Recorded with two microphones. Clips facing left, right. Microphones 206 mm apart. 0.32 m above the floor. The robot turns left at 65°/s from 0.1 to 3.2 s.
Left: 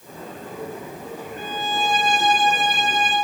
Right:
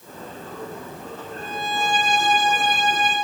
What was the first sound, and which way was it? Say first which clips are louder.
A violin: left 1 dB; 40° left.